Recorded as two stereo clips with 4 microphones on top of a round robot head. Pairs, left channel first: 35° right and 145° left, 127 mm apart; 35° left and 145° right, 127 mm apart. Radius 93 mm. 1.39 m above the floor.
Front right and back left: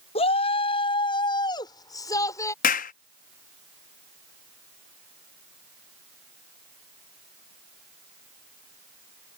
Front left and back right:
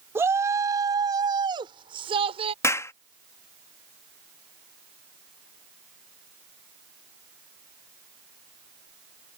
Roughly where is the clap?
Ahead right.